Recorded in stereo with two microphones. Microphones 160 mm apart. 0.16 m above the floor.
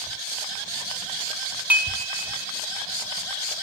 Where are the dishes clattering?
10° right (ahead or behind), 1.0 m.